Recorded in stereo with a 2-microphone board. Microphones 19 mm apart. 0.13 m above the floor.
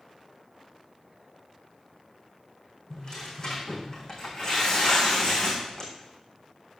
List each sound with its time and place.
2.9 s tearing paper: 35° left (ahead or behind), 4.5 m